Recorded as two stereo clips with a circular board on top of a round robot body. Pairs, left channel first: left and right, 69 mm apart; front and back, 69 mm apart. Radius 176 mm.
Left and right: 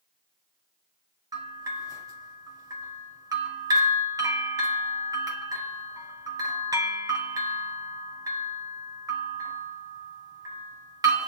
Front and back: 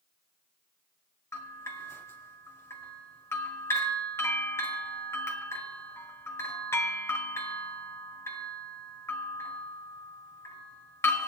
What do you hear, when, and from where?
1.3 s a bell: 55° right, 1.9 m